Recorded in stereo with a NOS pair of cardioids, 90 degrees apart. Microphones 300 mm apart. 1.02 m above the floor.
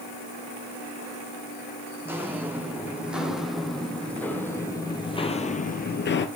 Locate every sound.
2.0 s footsteps: 10° right, 4 m; by 6.3 s 55° left, 1.5 m